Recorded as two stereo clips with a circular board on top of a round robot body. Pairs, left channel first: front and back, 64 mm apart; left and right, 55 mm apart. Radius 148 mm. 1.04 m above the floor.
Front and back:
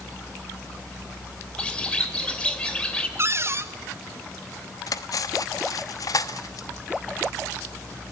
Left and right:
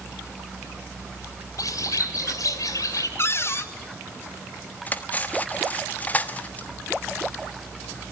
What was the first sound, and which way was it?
A bird, 75° left.